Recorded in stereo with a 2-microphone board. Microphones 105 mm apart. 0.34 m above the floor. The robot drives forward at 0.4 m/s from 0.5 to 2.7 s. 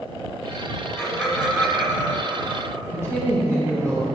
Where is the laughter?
5° right (ahead or behind), 2 m; by 2.6 s 10° right (ahead or behind), 1.5 m.